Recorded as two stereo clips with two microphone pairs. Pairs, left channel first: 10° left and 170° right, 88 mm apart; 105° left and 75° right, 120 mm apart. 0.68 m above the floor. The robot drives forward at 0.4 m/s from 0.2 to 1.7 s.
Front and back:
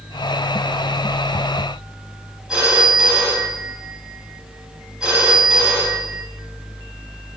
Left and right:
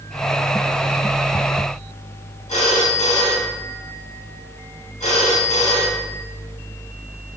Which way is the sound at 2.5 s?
105° left.